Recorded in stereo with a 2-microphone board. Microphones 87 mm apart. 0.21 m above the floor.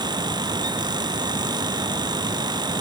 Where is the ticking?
I don't hear ticking.